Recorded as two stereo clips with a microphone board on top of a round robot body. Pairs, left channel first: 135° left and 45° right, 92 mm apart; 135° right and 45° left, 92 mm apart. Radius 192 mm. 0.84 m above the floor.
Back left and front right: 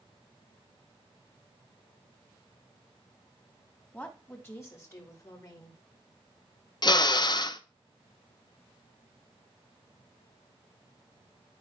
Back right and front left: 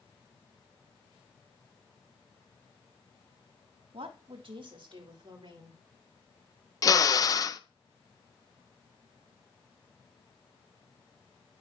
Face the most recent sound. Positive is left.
turn(degrees=175)